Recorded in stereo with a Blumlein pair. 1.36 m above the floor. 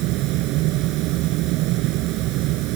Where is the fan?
40° right.